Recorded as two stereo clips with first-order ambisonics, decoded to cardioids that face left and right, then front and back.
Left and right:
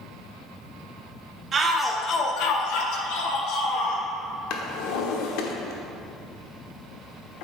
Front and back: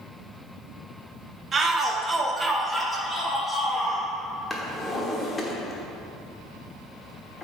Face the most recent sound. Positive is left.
turn(degrees=80)